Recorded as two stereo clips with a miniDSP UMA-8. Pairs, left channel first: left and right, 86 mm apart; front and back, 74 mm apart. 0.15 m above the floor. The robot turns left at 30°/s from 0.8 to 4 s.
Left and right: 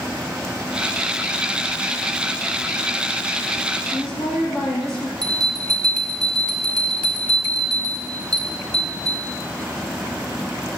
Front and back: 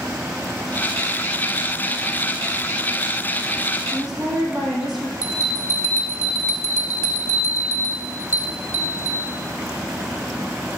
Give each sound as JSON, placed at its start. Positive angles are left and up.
{"t": 3.9, "sound": "a woman speaking", "azimuth_deg": 100, "distance_m": 4.0}
{"t": 5.2, "sound": "a bell", "azimuth_deg": 10, "distance_m": 2.0}